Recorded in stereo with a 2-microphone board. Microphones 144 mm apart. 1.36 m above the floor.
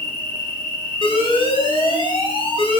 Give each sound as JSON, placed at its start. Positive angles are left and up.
{"t": 0.0, "sound": "an insect", "side_deg": -30, "distance_m": 1.8}
{"t": 1.0, "sound": "an alarm", "side_deg": 35, "distance_m": 1.6}